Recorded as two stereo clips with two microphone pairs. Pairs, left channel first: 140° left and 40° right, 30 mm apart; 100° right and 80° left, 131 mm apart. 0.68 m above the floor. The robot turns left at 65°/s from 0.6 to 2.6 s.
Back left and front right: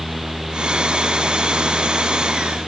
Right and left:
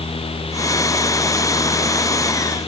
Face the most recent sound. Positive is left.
No sound to turn to.